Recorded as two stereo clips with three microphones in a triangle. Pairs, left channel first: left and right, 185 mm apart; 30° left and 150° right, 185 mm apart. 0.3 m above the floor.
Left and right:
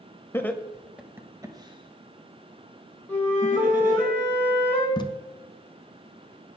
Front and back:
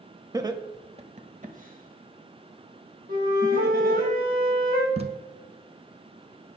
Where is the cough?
I don't hear a cough.